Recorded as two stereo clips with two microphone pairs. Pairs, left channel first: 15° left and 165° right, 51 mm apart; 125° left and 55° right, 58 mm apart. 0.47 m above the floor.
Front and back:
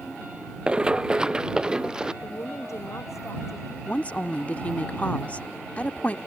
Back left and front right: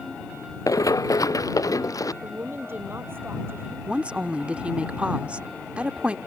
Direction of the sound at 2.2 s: 5° right.